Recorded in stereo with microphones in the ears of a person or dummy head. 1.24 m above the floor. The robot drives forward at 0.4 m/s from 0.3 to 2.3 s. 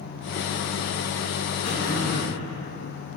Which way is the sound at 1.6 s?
55° left (ahead or behind).